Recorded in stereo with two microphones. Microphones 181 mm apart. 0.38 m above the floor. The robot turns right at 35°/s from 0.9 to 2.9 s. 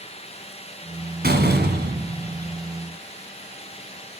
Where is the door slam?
115° right, 1.8 m; by 2.6 s 70° right, 1.8 m.